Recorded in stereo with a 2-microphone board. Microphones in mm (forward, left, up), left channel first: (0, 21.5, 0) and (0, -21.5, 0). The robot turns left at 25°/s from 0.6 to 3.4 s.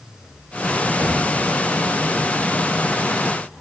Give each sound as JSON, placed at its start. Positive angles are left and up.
{"t": 1.0, "sound": "knocking", "side_deg": -75, "distance_m": 2.5}